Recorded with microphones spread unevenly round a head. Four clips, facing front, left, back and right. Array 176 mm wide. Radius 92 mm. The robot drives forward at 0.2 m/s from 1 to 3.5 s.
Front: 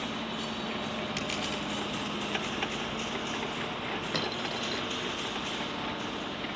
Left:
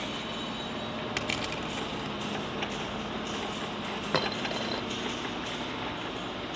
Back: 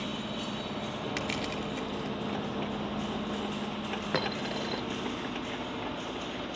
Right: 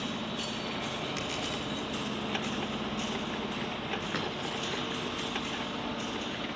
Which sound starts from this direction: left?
Crushing, at 1.2 s.